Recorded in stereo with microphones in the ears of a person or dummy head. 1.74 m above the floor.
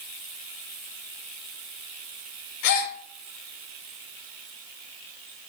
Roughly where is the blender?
No blender in this recording.